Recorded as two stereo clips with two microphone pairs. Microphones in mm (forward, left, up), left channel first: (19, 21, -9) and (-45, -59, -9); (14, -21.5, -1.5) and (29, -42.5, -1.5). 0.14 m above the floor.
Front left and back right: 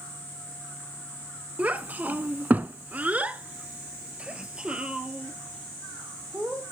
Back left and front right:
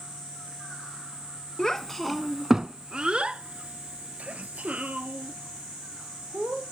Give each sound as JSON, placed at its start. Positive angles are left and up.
{"t": 1.6, "sound": "a child speaking", "azimuth_deg": 180, "distance_m": 0.7}